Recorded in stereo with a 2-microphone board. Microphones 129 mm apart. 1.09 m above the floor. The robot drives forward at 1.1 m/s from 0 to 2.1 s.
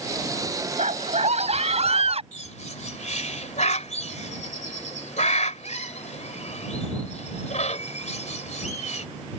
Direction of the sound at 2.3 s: 65° left (ahead or behind).